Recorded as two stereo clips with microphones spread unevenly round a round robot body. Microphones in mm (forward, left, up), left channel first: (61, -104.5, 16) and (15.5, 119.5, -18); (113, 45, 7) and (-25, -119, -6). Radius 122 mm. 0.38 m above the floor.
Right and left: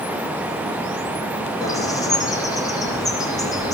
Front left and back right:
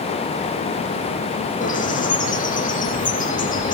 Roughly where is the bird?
Ahead.